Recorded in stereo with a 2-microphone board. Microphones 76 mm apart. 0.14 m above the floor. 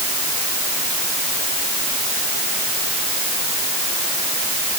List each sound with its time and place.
Only background noise.